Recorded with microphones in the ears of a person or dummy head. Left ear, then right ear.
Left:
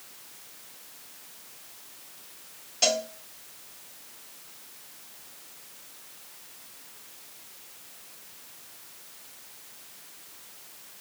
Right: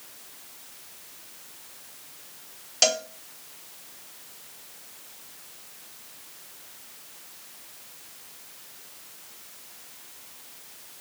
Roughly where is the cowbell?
Right.